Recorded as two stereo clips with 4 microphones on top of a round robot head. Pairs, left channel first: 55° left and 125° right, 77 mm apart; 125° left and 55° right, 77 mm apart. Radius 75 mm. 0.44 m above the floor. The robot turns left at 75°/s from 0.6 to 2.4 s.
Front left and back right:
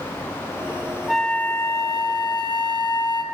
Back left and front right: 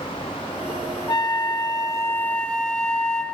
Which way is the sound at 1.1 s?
145° left.